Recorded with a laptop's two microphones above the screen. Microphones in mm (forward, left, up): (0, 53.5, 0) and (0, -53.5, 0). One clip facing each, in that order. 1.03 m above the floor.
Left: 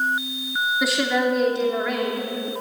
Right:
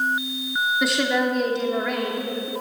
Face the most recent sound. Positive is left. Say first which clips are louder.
# left 1 dB
turn(degrees=0)  # may be behind; listen again after turning